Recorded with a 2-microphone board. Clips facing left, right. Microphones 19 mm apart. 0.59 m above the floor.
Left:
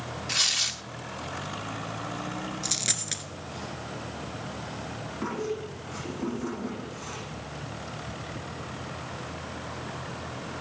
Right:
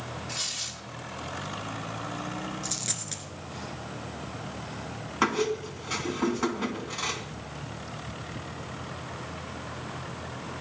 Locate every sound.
0.3 s tearing paper: 40° left (ahead or behind), 0.7 m
2.6 s a dropped coin: 30° left (ahead or behind), 1.4 m
5.2 s a squeak: 80° right, 3 m